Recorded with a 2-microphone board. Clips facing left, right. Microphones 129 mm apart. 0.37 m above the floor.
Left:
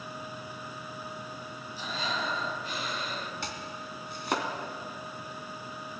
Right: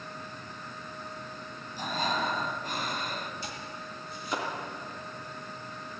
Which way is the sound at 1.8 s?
50° right (ahead or behind).